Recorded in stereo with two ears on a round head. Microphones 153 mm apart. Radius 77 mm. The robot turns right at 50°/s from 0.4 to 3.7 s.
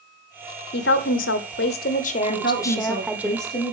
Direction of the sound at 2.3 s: 50° left.